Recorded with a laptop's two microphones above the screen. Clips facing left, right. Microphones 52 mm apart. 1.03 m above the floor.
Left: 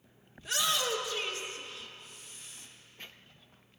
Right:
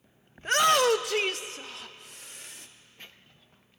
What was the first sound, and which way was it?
A shout, 40° right (ahead or behind).